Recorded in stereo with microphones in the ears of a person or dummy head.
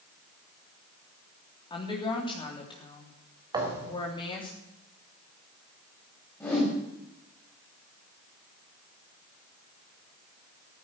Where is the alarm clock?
No alarm clock in this recording.